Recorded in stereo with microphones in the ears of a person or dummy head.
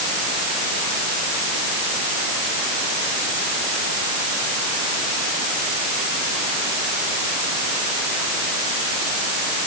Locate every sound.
Only background noise.